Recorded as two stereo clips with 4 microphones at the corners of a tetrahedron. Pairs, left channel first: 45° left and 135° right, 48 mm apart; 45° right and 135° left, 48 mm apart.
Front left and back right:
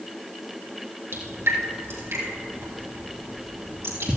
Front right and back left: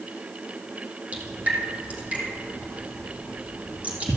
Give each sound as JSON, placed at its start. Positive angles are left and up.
{"t": 1.1, "sound": "dripping", "azimuth_deg": -165, "distance_m": 3.5}